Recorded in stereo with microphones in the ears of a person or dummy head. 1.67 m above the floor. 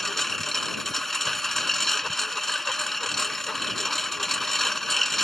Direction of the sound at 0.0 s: 5° left (ahead or behind).